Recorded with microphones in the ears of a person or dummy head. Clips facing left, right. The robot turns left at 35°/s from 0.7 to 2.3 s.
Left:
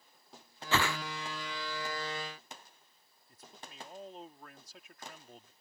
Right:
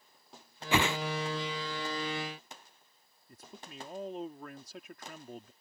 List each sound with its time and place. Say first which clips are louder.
0.7 s a whoosh: right 3 dB; 15° right (ahead or behind); by 1.0 s 25° right (ahead or behind)
3.3 s a man speaking: right 4 dB; 50° right (ahead or behind)